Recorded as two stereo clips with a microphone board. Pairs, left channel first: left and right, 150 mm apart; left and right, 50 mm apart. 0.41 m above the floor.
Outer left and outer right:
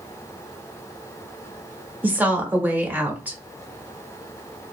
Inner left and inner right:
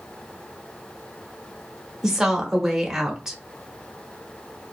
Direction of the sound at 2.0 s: 10° right (ahead or behind).